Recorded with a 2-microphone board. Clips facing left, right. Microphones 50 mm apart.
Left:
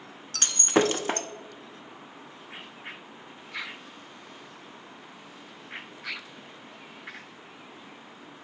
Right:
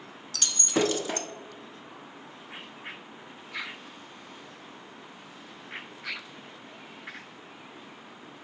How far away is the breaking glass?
About 0.7 m.